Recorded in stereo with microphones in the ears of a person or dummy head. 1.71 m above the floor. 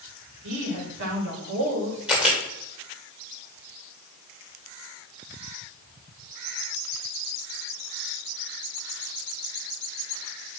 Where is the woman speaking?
75° right (ahead or behind), 4 m.